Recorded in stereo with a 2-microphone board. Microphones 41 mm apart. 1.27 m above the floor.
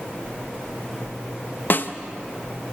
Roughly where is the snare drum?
Left.